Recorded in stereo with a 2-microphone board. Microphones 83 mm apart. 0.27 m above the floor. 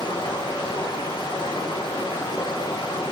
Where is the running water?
80° left, 7 m.